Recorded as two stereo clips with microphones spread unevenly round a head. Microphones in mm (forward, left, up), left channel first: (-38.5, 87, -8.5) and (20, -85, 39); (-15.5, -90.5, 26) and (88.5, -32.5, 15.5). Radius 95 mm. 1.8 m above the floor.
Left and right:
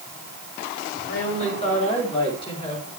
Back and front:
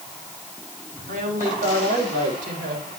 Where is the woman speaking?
55° left, 5.5 m; by 2.9 s 45° left, 6 m.